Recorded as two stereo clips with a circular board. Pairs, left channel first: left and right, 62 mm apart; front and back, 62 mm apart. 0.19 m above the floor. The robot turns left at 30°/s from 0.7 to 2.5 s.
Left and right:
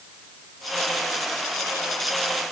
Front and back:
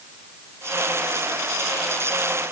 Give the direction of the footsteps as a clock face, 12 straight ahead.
No footsteps in this recording.